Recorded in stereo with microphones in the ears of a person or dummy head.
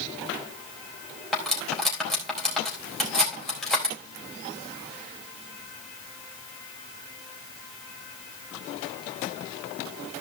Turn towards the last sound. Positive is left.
turn(degrees=5)  # may be behind; listen again after turning